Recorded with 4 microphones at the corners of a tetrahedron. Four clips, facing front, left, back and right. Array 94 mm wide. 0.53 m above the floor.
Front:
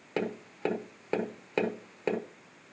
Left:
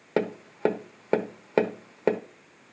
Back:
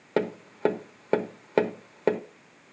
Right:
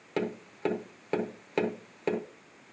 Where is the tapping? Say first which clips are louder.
Left 6 dB, back 6 dB; 130° left, 1.1 m.